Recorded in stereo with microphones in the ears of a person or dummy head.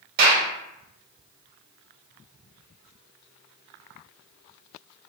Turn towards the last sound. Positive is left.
turn(degrees=-55)  # may be behind; listen again after turning